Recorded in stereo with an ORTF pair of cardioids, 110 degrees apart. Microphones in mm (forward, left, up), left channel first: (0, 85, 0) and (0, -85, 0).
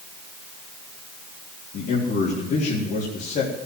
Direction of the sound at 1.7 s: 60° left.